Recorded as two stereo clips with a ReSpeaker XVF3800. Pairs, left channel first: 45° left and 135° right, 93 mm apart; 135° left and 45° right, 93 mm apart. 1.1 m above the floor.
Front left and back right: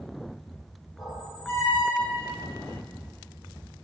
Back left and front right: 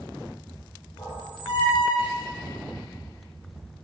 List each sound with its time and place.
1.0 s a squeak: 110° left, 2.5 m